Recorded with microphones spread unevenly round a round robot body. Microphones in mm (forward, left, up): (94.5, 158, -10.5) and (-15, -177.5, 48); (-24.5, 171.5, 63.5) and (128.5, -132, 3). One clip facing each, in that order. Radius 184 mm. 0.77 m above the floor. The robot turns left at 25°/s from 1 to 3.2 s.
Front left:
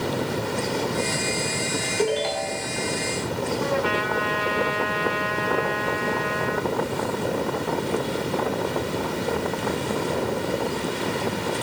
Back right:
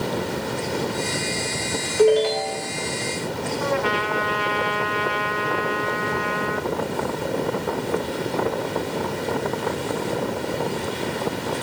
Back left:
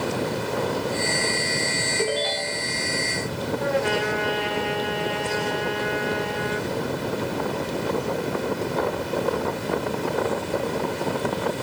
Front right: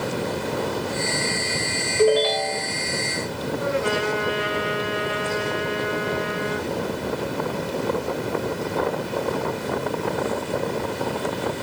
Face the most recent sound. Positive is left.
turn(degrees=-145)